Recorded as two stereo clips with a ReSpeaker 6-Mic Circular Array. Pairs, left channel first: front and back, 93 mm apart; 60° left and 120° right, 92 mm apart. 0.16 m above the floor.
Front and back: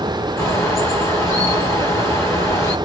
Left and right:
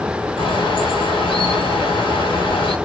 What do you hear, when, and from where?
0.4 s a bird: 55° left, 3 m